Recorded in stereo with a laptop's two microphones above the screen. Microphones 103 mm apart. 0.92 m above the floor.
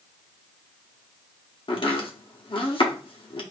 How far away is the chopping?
About 0.9 m.